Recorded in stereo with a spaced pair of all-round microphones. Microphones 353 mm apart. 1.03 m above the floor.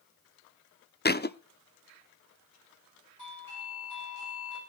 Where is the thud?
30° left (ahead or behind), 0.5 m.